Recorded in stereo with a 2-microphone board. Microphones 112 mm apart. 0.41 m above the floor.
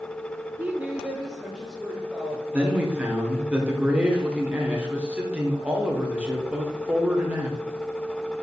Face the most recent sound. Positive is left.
turn(degrees=-10)  # may be behind; listen again after turning